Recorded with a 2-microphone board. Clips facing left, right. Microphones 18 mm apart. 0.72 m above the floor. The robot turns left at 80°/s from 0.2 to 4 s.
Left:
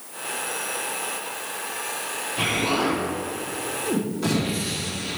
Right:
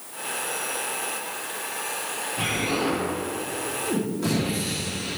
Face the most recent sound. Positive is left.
turn(degrees=15)